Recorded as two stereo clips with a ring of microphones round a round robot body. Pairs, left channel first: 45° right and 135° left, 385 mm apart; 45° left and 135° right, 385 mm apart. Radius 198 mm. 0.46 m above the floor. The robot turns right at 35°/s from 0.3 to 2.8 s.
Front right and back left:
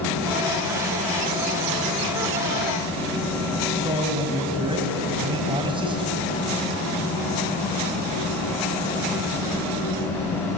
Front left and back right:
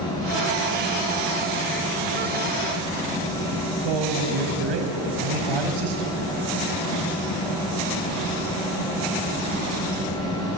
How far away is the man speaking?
About 4 m.